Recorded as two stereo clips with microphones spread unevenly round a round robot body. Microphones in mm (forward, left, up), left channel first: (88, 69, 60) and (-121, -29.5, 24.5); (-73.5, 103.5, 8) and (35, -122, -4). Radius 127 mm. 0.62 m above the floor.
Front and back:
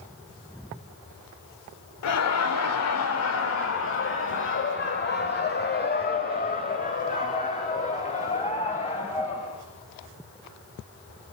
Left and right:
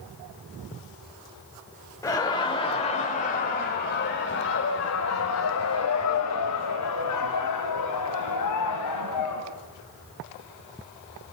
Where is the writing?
No writing in this recording.